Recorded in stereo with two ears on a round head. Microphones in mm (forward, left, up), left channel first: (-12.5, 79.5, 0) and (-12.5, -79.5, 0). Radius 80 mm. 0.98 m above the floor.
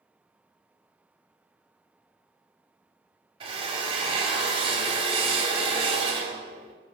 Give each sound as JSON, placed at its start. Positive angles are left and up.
{"t": 3.4, "sound": "a drill", "side_deg": -30, "distance_m": 2.0}